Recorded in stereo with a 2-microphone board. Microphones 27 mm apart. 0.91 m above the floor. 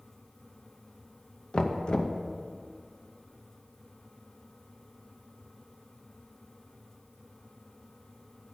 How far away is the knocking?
About 0.7 m.